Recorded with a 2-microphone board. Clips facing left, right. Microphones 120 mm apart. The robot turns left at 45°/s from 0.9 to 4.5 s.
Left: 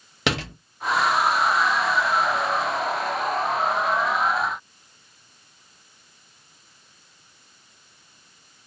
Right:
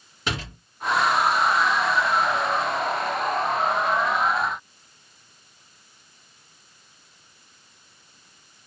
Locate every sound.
0.3 s a door slam: 80° left, 1.3 m